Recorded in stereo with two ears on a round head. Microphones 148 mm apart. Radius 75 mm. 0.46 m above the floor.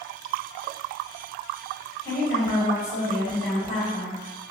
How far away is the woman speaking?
About 1.6 m.